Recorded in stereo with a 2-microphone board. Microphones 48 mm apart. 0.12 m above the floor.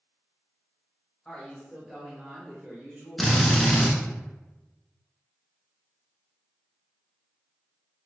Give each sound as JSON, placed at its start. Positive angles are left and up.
{"t": 1.2, "sound": "a woman speaking", "side_deg": 20, "distance_m": 1.6}
{"t": 3.2, "sound": "a drill", "side_deg": 5, "distance_m": 0.6}